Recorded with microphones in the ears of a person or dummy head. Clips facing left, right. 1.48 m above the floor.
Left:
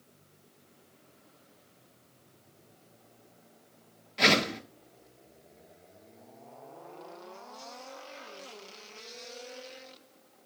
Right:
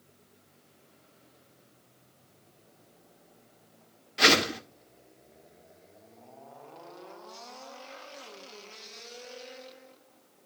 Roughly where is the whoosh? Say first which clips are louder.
Right 1 dB; centre.